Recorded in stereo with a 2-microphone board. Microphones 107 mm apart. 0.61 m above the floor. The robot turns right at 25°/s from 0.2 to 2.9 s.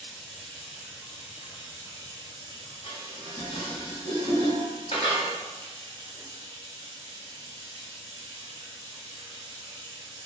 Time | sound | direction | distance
0.0 | running water | 175° left | 1.0 m
2.8 | dishes clattering | 65° left (ahead or behind) | 1.1 m